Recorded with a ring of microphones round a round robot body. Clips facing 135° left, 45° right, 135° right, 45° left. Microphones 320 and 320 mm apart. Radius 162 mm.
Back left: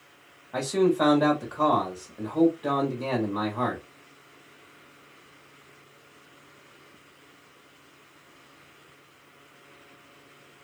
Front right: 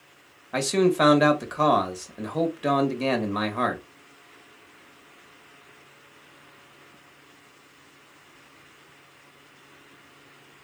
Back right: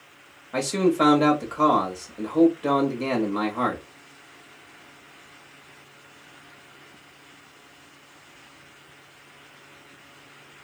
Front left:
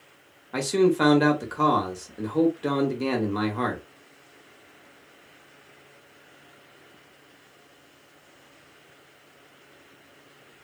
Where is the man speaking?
35° right, 1.0 m.